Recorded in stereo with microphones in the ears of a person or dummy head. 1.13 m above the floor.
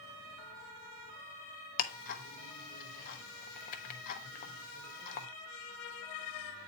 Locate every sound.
1.8 s ticking: 45° left (ahead or behind), 0.9 m